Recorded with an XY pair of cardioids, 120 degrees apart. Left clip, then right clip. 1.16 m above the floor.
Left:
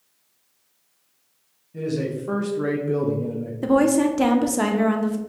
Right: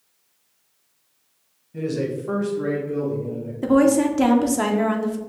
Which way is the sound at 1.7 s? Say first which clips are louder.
Right 1 dB; 15° right.